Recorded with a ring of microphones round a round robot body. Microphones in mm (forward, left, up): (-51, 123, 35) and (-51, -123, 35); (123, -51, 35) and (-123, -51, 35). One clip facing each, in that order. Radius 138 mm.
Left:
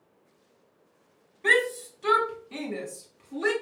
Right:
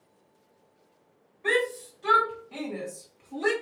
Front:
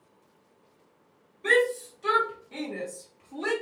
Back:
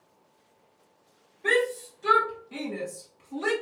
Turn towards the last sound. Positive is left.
turn(degrees=170)